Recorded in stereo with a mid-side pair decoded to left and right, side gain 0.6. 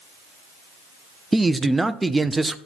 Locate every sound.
1.3 s a man speaking: 10° right, 0.7 m